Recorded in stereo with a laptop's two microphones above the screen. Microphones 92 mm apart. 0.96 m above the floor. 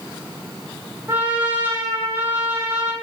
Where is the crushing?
No crushing in this recording.